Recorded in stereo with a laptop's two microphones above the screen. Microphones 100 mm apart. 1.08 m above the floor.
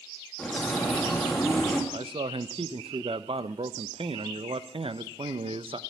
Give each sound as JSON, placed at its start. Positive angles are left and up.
{"t": 0.4, "sound": "a bird", "side_deg": 10, "distance_m": 2.0}
{"t": 1.9, "sound": "a man speaking", "side_deg": -75, "distance_m": 0.6}